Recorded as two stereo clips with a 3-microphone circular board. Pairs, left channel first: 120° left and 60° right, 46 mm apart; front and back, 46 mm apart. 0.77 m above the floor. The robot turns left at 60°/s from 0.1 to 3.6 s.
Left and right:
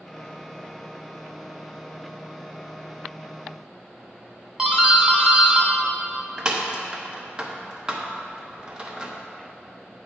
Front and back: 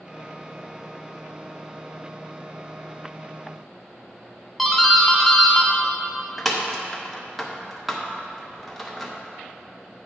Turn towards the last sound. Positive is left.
turn(degrees=-85)